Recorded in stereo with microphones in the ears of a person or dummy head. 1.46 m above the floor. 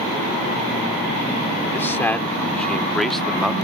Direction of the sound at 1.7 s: 10° left (ahead or behind).